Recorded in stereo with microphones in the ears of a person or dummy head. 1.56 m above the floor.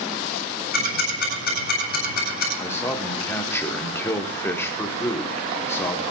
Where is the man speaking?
10° left (ahead or behind), 1.1 m.